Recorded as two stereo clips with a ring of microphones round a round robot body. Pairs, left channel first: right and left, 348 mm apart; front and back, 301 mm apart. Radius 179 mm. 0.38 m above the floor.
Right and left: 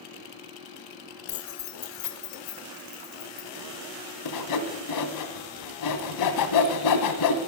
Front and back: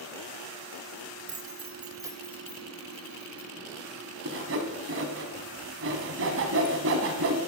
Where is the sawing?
125° right, 1.4 m.